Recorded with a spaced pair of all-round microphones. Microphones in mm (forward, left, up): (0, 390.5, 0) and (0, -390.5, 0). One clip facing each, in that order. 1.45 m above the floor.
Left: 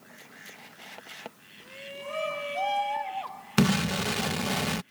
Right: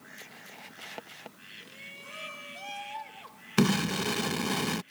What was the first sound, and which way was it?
A shout, 80° left.